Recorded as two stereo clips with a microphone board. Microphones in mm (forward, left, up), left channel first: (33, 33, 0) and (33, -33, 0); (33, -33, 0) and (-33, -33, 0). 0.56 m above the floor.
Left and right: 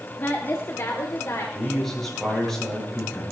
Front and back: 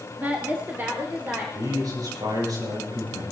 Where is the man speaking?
175° left, 8.5 m.